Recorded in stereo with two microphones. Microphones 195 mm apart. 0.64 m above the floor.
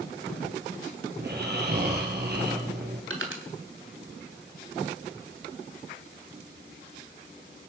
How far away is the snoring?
About 5.5 m.